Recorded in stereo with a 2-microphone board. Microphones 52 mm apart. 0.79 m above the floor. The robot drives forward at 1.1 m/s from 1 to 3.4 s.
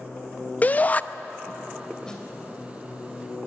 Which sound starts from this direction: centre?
A snare drum, at 2.0 s.